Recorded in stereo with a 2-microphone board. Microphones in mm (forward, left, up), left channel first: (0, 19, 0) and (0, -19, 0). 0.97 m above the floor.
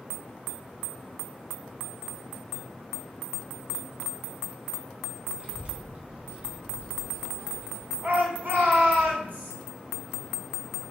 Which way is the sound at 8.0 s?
55° right (ahead or behind).